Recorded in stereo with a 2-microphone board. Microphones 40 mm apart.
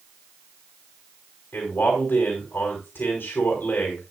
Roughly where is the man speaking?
Left.